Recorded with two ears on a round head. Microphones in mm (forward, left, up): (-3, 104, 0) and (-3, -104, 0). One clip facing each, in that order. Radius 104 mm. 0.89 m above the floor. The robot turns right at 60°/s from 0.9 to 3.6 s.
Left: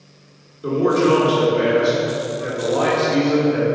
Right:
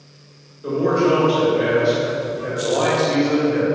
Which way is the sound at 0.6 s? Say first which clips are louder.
Left 1 dB; 70° left.